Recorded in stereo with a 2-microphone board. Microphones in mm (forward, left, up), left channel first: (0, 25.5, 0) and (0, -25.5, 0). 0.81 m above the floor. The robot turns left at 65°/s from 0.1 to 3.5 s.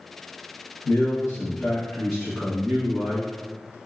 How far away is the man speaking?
About 0.7 m.